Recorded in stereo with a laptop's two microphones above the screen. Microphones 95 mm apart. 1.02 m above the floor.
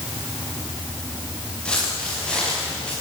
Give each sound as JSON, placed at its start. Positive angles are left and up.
{"t": 1.6, "sound": "footsteps", "side_deg": 10, "distance_m": 7.5}